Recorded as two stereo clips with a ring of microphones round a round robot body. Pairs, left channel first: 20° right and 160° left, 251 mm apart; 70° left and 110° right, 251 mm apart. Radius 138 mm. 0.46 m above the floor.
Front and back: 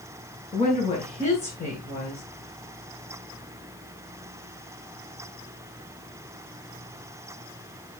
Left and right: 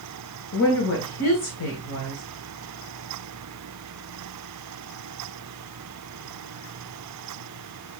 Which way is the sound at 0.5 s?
40° left.